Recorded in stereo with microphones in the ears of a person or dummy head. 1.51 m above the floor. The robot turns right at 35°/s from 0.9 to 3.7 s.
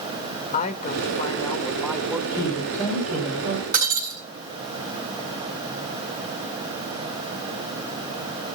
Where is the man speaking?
140° left, 1.9 m; by 2.2 s 175° right, 1.9 m.